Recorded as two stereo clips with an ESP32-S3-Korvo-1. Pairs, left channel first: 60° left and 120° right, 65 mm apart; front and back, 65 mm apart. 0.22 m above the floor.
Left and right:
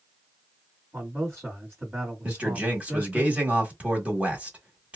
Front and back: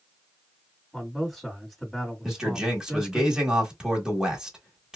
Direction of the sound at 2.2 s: 125° right.